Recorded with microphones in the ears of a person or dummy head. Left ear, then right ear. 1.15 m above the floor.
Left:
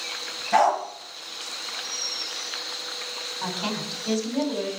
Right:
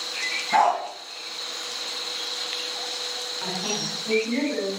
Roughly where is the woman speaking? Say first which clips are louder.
Right 1 dB; left.